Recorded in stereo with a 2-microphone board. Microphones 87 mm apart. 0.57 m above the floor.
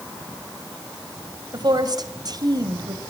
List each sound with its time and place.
1.5 s a woman speaking: 50° right (ahead or behind), 2.5 m